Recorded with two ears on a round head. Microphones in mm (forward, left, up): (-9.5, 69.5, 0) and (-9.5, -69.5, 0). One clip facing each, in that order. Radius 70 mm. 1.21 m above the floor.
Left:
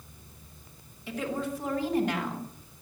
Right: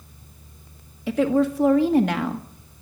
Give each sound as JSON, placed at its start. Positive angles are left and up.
{"t": 1.1, "sound": "a woman speaking", "side_deg": -55, "distance_m": 1.9}